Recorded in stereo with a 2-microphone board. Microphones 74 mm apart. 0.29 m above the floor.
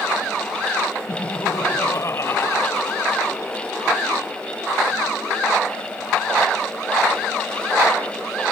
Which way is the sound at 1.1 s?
50° left (ahead or behind).